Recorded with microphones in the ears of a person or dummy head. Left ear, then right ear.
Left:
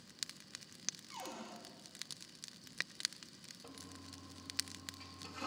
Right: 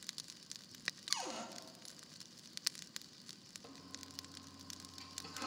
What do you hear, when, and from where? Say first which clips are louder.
1.1 s a cupboard door: right 6 dB; 70° right (ahead or behind), 5 m
3.6 s a toilet flushing: right 1 dB; 5° right (ahead or behind), 3 m